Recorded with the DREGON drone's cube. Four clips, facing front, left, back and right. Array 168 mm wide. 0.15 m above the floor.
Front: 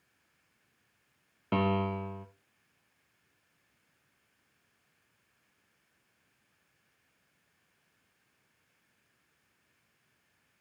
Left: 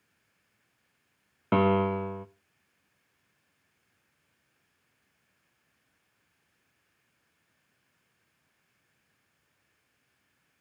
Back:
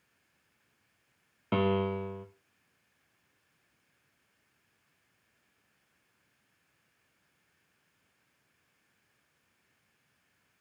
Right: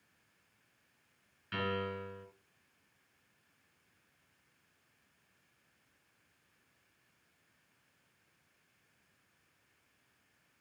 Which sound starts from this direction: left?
A piano, at 1.5 s.